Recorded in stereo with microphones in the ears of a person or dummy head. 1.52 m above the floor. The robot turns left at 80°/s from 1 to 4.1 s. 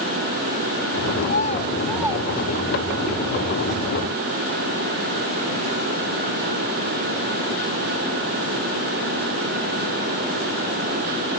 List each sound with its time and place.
1.2 s a child speaking: 55° left (ahead or behind); by 3.0 s 80° right